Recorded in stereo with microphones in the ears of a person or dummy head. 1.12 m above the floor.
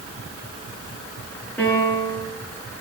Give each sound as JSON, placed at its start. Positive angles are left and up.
{"t": 1.6, "sound": "a piano", "side_deg": 10, "distance_m": 9.0}